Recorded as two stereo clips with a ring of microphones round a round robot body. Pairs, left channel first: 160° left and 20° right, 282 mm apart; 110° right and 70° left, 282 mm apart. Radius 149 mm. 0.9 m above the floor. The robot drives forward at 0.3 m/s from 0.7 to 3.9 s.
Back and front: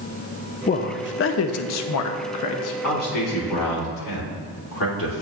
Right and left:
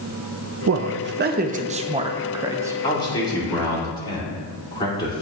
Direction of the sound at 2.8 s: 170° left.